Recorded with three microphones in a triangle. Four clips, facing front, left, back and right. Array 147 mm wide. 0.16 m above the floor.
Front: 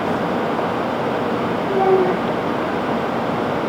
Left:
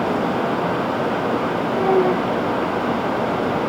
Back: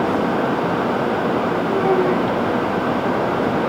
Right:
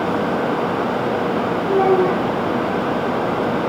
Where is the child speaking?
85° right, 8.5 m.